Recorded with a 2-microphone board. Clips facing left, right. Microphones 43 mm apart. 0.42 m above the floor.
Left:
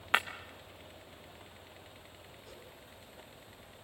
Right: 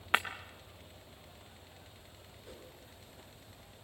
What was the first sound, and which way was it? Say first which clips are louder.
Breaking glass: left 1 dB; centre (ahead or behind).